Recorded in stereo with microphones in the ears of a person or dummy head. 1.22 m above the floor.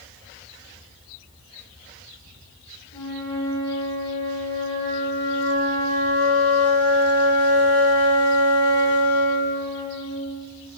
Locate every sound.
2.9 s a flute: 15° left (ahead or behind), 1.6 m